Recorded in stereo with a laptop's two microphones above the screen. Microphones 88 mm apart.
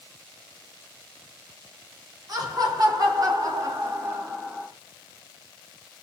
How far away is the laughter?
About 1.7 m.